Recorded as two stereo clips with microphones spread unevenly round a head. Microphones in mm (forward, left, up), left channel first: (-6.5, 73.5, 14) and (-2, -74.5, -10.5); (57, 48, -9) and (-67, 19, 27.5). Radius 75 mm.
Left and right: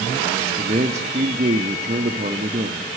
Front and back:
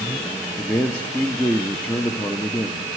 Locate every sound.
0.6 s a man speaking: 60° right, 0.9 m